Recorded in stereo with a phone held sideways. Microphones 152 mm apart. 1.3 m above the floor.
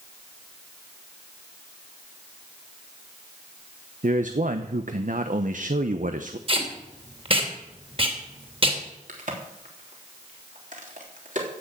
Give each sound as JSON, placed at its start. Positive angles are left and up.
{"t": 4.0, "sound": "a man speaking", "side_deg": -60, "distance_m": 0.8}
{"t": 6.5, "sound": "tape being pulled", "side_deg": -40, "distance_m": 2.5}
{"t": 9.1, "sound": "a crack", "side_deg": -60, "distance_m": 3.5}